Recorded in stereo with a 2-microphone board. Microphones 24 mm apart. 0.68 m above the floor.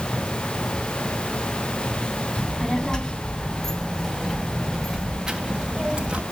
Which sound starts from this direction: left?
A child speaking, at 2.4 s.